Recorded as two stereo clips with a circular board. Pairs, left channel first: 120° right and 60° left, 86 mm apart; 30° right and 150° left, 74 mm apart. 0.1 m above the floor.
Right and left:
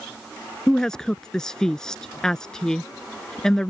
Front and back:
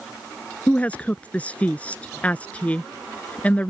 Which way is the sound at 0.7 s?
50° right.